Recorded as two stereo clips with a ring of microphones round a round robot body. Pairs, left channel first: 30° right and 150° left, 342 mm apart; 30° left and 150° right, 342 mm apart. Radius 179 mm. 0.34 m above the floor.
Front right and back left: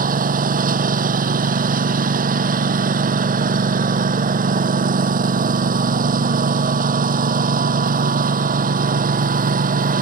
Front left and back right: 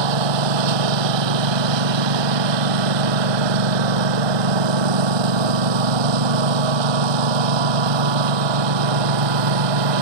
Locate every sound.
0.0 s a lawn mower: 145° right